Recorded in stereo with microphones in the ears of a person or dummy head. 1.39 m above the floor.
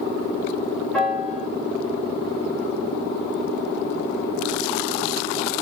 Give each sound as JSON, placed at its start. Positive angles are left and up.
{"t": 0.9, "sound": "a piano", "side_deg": 5, "distance_m": 1.8}